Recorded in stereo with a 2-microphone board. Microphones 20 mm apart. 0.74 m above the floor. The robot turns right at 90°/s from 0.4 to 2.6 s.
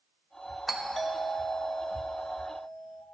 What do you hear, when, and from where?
0.7 s a doorbell: centre (ahead or behind), 1.0 m; by 3.0 s 5° left (ahead or behind), 1.0 m